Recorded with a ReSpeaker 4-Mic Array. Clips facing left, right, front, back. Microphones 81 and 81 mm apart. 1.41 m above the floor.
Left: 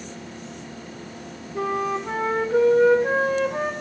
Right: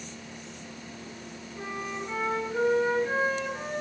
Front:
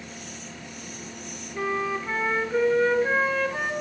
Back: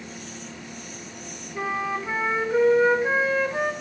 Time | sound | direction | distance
1.6 | a flute | 100° left | 1.1 m